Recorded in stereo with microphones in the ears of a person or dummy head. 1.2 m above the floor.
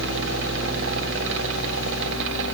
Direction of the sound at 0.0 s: 65° right (ahead or behind).